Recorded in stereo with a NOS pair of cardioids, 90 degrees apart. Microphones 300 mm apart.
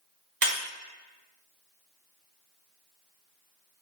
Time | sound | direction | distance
0.4 | breaking glass | 40° right | 1.6 m